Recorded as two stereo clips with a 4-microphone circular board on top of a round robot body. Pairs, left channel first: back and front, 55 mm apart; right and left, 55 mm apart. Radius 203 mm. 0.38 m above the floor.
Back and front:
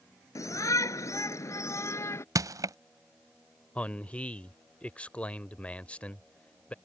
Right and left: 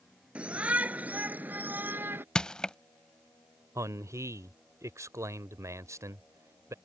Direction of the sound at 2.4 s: 15° right.